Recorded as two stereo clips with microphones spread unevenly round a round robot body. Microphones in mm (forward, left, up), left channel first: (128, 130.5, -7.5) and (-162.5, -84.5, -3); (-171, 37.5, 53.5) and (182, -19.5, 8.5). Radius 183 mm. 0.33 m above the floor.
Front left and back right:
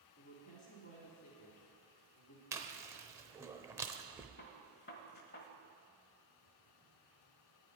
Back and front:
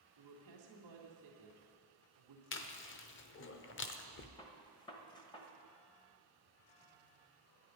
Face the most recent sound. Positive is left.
turn(degrees=90)